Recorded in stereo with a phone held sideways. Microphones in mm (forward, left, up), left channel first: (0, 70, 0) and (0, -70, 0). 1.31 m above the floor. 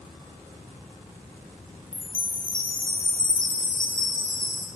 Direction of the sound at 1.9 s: 75° left (ahead or behind).